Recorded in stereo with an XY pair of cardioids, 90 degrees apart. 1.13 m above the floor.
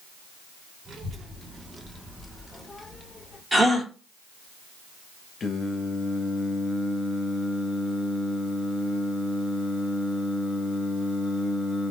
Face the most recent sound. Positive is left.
turn(degrees=50)